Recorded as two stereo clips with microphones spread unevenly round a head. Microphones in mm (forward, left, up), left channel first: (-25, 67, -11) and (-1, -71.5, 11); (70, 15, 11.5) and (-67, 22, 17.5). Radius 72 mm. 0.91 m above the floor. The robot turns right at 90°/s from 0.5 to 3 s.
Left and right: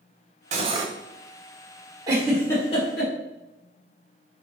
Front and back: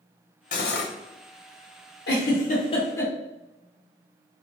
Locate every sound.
0.5 s cutlery clinking: 40° right, 0.8 m; by 0.9 s 5° right, 0.8 m
2.1 s a giggle: 15° right, 1.4 m; by 3.1 s 70° left, 1.4 m